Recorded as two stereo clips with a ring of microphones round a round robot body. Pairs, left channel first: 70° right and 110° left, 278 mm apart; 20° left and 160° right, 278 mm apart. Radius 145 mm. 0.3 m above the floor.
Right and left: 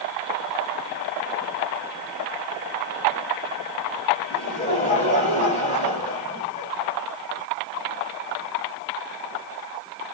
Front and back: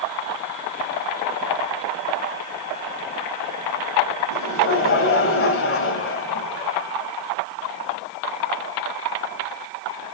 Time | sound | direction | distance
4.3 | laughter | 5° right | 2 m